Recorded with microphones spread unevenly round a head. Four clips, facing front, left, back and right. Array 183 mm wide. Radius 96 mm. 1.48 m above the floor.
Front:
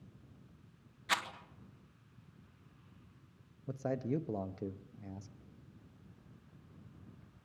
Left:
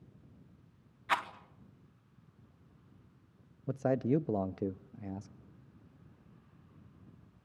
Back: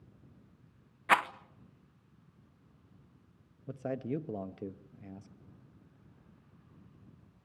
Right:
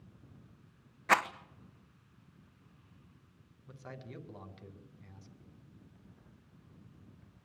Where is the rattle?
130° right, 1.0 m.